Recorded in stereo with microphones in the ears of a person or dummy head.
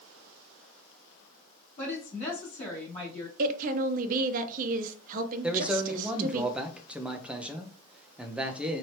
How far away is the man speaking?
About 0.6 m.